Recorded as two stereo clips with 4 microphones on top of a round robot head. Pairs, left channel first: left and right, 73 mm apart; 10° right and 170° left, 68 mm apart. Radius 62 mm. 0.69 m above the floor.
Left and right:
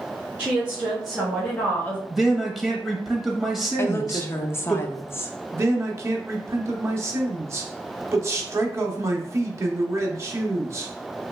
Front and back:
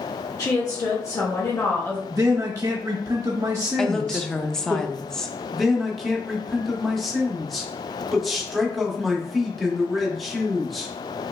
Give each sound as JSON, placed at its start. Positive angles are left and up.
{"t": 0.4, "sound": "a woman speaking", "azimuth_deg": -25, "distance_m": 1.4}
{"t": 2.1, "sound": "a man speaking", "azimuth_deg": -170, "distance_m": 0.7}
{"t": 3.8, "sound": "a woman speaking", "azimuth_deg": 70, "distance_m": 0.5}
{"t": 5.5, "sound": "a man speaking", "azimuth_deg": -100, "distance_m": 0.8}